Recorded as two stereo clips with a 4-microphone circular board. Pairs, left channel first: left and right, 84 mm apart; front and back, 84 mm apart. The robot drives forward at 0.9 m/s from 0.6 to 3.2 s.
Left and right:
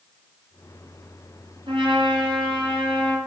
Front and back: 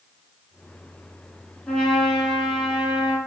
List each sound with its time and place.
1.7 s a trumpet: 75° right, 3.5 m; by 3.2 s 100° right, 3.5 m